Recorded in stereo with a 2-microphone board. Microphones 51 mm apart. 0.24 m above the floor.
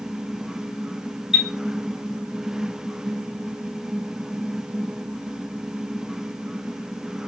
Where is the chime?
15° right (ahead or behind), 1.8 m.